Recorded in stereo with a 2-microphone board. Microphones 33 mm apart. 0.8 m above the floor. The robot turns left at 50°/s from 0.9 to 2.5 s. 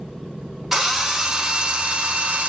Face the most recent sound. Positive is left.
turn(degrees=-95)